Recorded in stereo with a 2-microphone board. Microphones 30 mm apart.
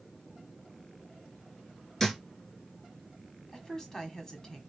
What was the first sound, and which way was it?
A thud, 10° left (ahead or behind).